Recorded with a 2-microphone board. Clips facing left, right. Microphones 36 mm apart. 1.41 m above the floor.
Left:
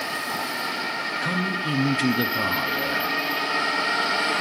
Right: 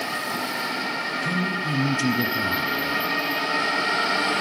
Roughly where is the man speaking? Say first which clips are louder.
Even; left.